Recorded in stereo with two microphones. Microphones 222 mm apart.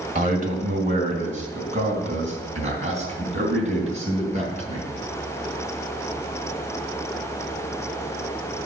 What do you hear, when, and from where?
0.1 s a man speaking: 35° right (ahead or behind), 2.5 m; by 4.9 s 30° right (ahead or behind), 5 m